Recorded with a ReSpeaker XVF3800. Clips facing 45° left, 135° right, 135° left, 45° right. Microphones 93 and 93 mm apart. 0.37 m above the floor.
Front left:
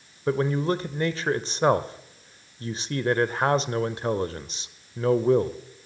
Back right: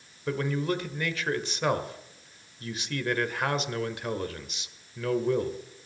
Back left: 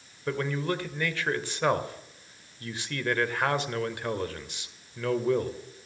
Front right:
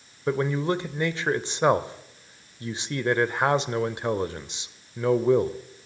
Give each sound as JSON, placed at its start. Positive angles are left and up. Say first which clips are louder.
{"t": 0.3, "sound": "a man speaking", "louder": "front left 5 dB, front right 5 dB", "azimuth_deg": 10, "distance_m": 1.0}